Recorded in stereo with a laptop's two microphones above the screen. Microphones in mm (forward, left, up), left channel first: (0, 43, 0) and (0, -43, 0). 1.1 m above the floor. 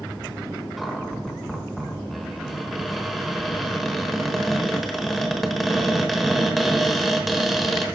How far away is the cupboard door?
About 1.1 m.